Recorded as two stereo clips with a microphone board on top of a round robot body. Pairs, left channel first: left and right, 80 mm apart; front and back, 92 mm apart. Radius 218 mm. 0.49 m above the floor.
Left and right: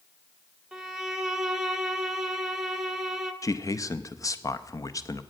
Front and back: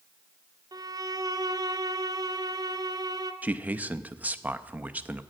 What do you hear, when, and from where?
0.7 s a violin: 170° right, 1.1 m
3.4 s a man speaking: 115° left, 0.9 m